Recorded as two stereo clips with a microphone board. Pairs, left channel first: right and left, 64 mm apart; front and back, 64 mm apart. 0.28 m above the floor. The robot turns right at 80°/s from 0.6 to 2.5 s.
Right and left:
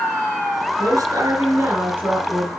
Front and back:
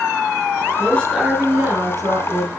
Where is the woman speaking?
60° left, 4 m; by 2.5 s 165° right, 4 m.